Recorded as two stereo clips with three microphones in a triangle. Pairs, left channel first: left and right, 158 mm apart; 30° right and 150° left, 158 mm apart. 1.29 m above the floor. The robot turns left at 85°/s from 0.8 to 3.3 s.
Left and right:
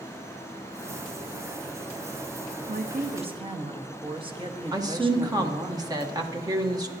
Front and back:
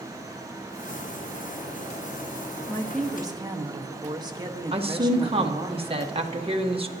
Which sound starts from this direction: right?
A woman speaking, at 2.7 s.